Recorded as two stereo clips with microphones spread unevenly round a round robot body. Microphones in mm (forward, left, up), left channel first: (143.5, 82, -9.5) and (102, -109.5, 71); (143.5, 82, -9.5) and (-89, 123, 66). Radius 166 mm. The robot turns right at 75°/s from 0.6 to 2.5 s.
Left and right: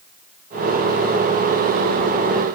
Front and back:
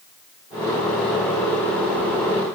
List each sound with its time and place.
Only background noise.